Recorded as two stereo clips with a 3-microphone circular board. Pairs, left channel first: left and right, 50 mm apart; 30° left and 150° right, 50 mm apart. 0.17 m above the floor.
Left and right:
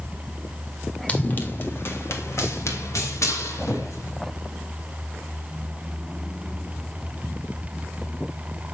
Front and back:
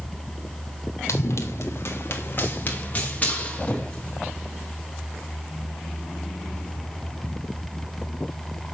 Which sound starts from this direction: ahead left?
Running footsteps, at 1.1 s.